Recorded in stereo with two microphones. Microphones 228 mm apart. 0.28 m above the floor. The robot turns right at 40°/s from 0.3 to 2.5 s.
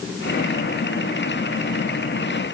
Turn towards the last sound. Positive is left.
No sound to turn to.